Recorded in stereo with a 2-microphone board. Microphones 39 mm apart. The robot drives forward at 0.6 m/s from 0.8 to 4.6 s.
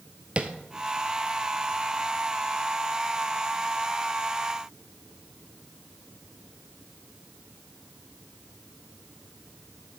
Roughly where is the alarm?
No alarm in this recording.